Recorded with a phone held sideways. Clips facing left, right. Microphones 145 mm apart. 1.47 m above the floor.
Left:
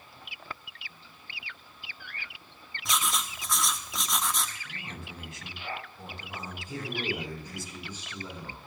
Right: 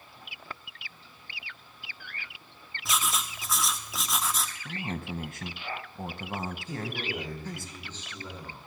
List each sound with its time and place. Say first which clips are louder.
2.9 s writing: even; centre (ahead or behind), 0.9 m
4.7 s a man speaking: right 8 dB; 55° right (ahead or behind), 1.8 m
6.7 s a man speaking: left 1 dB; 10° left (ahead or behind), 8.5 m